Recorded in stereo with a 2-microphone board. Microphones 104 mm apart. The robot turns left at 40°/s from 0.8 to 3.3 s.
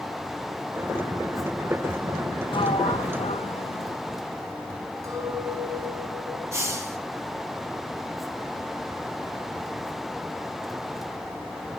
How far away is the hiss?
About 3 m.